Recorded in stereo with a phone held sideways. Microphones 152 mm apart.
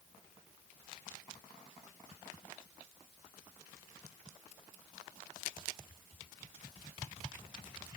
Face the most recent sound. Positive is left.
No sound to turn to.